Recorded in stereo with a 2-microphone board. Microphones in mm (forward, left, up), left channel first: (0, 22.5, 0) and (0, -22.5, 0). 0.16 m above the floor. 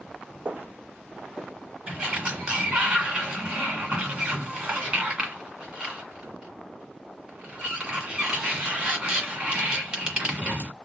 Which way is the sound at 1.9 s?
20° right (ahead or behind).